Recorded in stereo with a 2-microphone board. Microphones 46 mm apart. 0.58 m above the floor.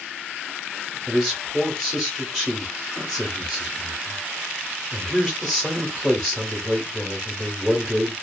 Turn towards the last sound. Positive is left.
turn(degrees=0)  # may be behind; listen again after turning